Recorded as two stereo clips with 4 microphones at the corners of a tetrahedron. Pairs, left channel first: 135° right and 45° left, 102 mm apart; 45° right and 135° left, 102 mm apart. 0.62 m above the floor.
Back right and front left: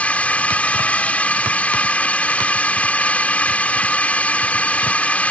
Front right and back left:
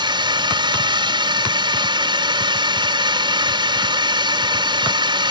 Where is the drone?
150° left.